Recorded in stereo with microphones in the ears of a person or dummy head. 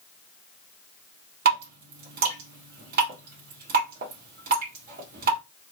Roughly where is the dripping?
Right.